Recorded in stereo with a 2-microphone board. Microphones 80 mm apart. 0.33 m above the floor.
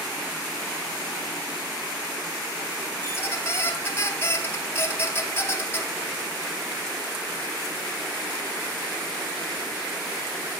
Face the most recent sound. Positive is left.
turn(degrees=30)  # may be behind; listen again after turning